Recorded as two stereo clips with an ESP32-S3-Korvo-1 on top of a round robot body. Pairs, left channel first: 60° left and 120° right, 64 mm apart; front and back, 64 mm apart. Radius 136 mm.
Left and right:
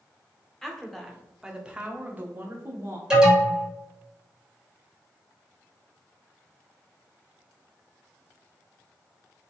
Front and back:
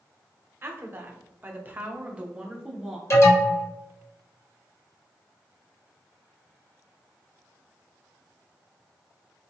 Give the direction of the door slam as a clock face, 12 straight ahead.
I don't hear a door slam.